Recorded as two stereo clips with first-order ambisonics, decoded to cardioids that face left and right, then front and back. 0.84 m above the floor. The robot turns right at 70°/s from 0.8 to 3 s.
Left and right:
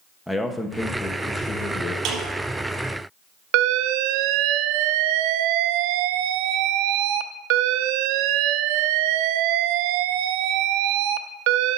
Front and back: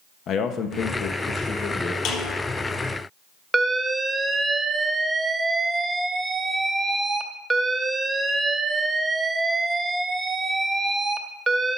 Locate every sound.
0.3 s a man speaking: straight ahead, 0.9 m; by 1.9 s 80° left, 0.9 m
2.0 s a snare drum: 45° right, 4.5 m; by 2.3 s 25° right, 4.5 m
3.5 s an alarm: 100° right, 0.6 m